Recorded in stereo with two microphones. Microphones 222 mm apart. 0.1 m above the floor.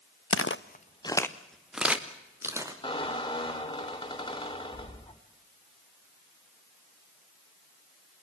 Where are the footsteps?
75° left (ahead or behind), 0.8 m; by 2.7 s 15° right (ahead or behind), 3 m.